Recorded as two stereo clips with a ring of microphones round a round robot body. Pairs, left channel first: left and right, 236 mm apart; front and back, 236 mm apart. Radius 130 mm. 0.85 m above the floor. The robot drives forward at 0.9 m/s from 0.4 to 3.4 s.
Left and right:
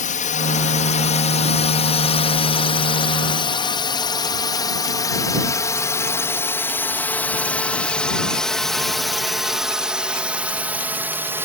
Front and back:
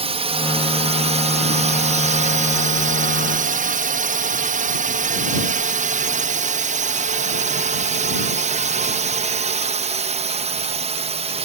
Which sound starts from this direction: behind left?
A drone, at 0.0 s.